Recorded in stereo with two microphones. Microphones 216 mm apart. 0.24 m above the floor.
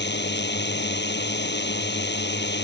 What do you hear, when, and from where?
0.0 s a drone: 55° left (ahead or behind)